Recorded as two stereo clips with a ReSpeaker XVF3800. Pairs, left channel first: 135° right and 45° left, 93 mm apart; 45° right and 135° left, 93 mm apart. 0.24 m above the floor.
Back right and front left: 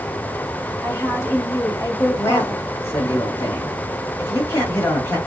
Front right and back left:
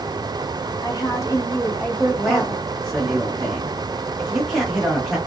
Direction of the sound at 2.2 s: 140° right.